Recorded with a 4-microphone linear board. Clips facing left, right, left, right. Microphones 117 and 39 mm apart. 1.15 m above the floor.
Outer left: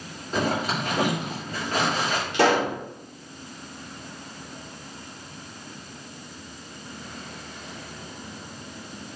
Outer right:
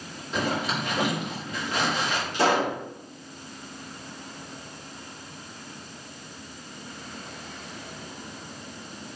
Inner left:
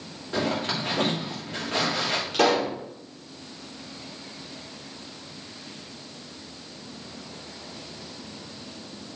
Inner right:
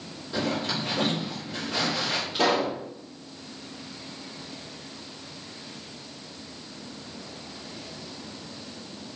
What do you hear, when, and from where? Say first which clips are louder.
0.3 s a zipper: outer left 2 dB, inner left 1 dB; 40° left (ahead or behind), 3.5 m
2.3 s a pop: outer left 2 dB, inner left 2 dB; 70° left (ahead or behind), 4 m